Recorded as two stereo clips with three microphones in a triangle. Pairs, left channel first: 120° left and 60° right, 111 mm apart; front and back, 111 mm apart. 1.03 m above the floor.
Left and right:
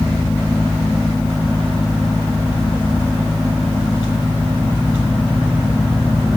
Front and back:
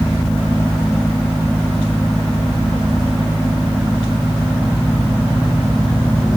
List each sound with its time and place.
Only background noise.